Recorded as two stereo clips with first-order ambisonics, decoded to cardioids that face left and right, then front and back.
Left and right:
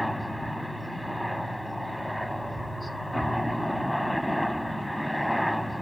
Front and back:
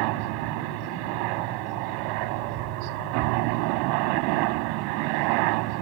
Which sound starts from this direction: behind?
A helicopter, at 0.0 s.